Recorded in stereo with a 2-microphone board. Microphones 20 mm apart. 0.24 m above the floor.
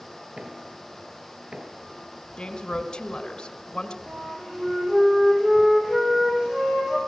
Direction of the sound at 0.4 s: 60° right (ahead or behind).